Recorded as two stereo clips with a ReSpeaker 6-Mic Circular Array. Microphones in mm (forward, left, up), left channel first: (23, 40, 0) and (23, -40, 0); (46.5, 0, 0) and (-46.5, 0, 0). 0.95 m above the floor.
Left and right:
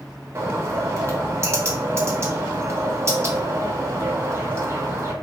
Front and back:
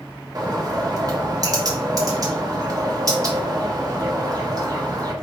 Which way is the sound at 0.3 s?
140° right.